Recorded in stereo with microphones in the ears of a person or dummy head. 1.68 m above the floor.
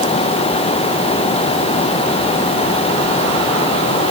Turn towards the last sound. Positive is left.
No sound to turn to.